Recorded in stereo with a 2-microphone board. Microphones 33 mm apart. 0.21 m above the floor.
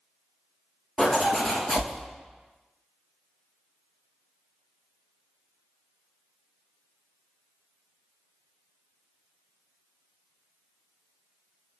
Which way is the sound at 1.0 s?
10° right (ahead or behind).